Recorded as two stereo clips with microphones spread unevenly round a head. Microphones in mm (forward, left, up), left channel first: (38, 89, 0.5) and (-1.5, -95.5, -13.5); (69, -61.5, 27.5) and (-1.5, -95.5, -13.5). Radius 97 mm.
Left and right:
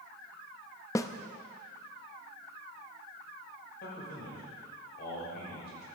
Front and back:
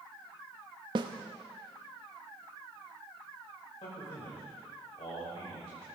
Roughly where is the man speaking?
Ahead left.